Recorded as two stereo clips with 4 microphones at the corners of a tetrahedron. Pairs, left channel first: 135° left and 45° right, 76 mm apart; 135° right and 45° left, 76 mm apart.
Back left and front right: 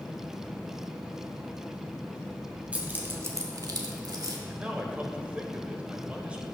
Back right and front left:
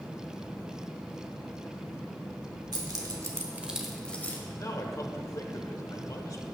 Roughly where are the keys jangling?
Ahead left.